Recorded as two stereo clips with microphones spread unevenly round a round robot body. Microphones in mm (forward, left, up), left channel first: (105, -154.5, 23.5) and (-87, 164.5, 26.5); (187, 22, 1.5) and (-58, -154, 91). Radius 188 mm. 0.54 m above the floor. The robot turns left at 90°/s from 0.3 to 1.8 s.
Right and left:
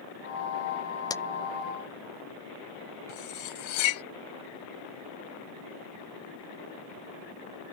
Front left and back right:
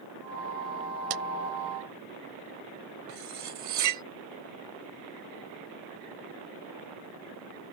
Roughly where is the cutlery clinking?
Right.